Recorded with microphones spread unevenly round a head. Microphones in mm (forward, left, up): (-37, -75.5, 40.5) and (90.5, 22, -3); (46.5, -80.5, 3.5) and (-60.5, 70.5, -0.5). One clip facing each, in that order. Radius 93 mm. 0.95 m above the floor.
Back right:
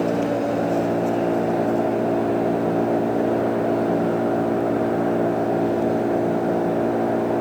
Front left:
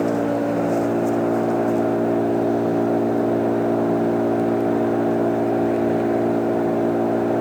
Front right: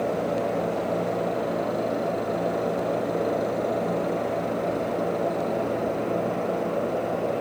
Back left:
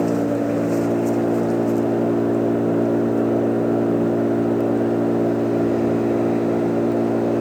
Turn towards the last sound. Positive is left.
turn(degrees=115)